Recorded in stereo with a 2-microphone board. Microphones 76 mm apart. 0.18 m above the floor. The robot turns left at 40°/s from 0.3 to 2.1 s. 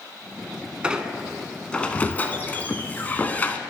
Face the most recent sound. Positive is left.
turn(degrees=150)